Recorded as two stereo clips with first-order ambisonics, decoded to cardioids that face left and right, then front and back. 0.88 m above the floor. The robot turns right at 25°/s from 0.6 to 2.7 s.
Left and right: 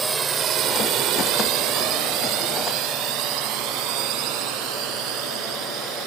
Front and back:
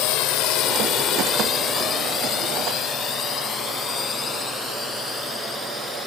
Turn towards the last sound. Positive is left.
turn(degrees=-75)